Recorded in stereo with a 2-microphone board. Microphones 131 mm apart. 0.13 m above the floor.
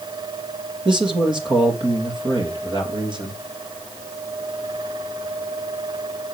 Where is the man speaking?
35° right (ahead or behind), 3.5 m.